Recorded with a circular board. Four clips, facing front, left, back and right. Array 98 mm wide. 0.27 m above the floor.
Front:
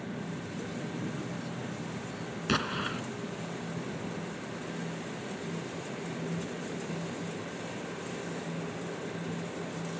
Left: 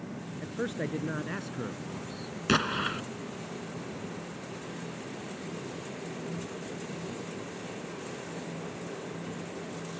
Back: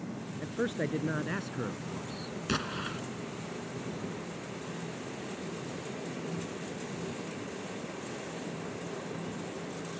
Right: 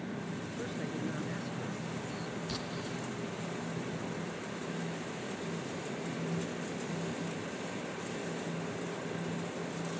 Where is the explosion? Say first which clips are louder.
Left 10 dB, front 4 dB; 80° left.